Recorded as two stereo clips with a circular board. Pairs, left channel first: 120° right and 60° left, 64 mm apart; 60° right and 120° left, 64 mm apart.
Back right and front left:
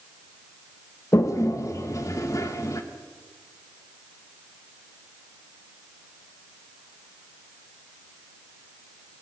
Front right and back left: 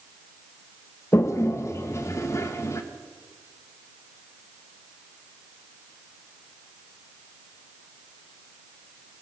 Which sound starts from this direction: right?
A toilet flushing, at 1.1 s.